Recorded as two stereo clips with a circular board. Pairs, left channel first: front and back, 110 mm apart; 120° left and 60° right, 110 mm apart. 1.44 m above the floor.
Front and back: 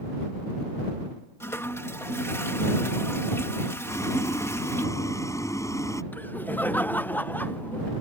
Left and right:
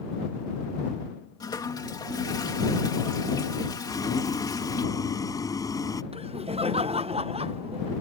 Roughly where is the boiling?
Ahead left.